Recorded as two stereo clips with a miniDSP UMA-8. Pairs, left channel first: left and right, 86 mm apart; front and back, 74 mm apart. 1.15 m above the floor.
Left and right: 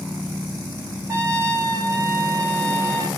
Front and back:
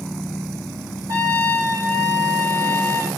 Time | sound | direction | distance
1.1 | a trumpet | 140° right | 1.8 m